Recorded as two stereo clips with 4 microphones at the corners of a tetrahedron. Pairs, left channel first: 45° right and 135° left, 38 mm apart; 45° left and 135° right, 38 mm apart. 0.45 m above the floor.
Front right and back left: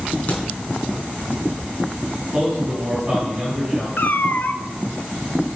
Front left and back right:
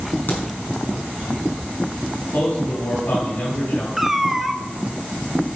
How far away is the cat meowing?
About 0.6 m.